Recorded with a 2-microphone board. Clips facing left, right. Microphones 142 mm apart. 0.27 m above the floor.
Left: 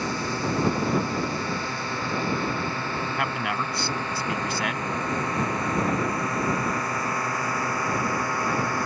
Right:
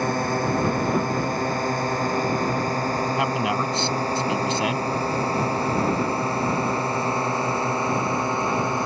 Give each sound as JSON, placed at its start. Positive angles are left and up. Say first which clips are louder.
{"t": 0.0, "sound": "a drone", "louder": "right 5 dB", "side_deg": -50}
{"t": 3.2, "sound": "a man speaking", "louder": "right 5 dB", "side_deg": -25}